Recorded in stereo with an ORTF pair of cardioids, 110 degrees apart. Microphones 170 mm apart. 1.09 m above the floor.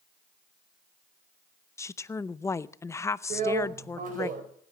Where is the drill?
50° right, 4.5 m.